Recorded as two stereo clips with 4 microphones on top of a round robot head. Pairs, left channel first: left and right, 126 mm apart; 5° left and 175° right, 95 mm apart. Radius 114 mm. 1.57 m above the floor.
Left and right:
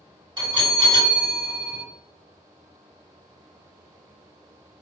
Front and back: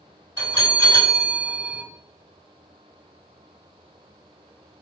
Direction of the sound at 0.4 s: 45° right.